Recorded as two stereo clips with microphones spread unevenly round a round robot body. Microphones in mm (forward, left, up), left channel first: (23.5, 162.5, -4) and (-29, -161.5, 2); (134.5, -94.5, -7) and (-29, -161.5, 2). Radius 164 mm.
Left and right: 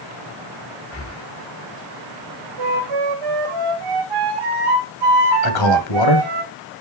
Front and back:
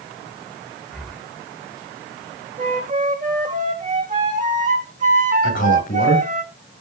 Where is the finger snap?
No finger snap in this recording.